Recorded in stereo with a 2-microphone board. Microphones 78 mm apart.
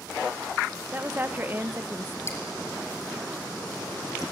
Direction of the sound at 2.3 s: 30° left (ahead or behind).